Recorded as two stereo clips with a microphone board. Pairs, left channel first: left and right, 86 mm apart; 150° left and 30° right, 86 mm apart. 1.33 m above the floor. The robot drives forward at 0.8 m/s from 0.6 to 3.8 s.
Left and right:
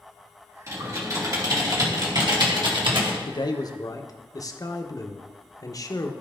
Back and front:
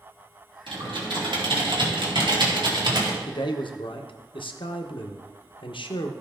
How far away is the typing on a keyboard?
About 3.5 m.